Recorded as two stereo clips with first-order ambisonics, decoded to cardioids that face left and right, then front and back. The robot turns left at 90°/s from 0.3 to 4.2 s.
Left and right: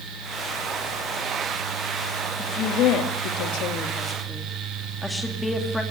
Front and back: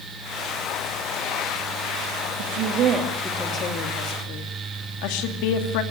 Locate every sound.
2.4 s a woman speaking: 170° left, 2.5 m; by 5.8 s 5° left, 2.5 m